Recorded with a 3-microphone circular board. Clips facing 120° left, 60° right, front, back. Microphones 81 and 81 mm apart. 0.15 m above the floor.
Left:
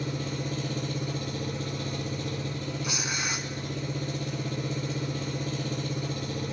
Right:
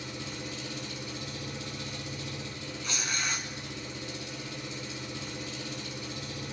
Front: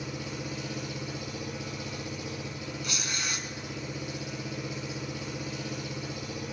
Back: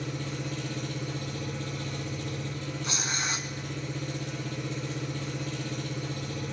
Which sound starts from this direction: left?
An engine running, at 0.0 s.